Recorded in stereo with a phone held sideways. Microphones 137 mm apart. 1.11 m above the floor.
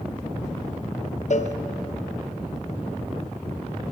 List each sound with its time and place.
1.3 s a cowbell: 60° left (ahead or behind), 0.6 m